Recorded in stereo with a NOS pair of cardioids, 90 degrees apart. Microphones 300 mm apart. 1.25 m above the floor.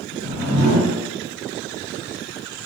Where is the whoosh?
55° right, 1.1 m.